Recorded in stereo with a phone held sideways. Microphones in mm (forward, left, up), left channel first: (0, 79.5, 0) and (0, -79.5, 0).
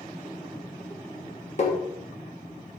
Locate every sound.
1.6 s tapping: 50° left (ahead or behind), 1.9 m